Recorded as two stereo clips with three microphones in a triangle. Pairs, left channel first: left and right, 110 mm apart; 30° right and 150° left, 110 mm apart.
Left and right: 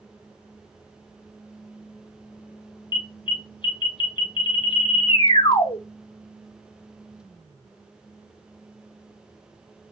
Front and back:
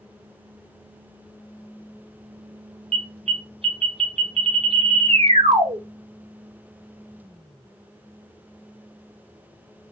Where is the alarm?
130° left, 0.8 m.